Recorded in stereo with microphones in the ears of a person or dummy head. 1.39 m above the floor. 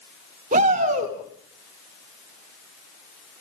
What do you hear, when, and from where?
0.5 s a shout: 45° right (ahead or behind), 3.5 m